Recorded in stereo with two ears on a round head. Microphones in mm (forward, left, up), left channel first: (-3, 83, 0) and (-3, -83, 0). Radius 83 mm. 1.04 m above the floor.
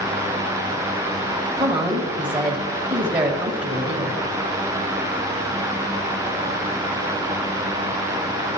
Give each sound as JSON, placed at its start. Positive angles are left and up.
{"t": 1.6, "sound": "a woman speaking", "side_deg": -25, "distance_m": 1.0}